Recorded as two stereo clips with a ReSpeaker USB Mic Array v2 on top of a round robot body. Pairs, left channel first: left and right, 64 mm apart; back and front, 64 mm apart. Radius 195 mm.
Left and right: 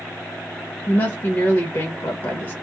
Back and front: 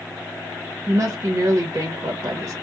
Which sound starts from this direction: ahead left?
A woman speaking, at 0.9 s.